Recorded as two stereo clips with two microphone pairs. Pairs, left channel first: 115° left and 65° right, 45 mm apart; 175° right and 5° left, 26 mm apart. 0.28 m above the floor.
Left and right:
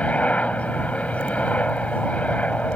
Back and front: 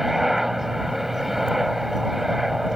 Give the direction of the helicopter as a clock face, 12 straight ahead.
9 o'clock.